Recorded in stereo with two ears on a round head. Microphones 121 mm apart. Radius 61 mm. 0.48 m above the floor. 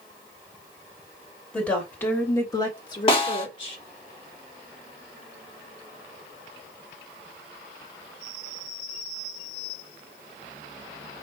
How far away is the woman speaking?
About 1.7 m.